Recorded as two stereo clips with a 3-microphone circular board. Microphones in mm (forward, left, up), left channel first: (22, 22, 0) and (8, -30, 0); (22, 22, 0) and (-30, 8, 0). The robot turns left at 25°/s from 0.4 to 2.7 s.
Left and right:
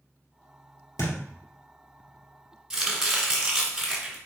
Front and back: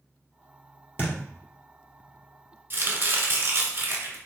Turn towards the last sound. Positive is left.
turn(degrees=180)